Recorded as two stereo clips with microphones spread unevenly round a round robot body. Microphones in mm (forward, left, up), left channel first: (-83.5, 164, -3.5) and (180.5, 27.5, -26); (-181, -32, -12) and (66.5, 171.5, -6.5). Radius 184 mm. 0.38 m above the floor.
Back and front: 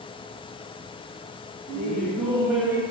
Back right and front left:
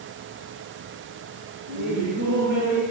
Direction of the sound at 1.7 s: 70° left.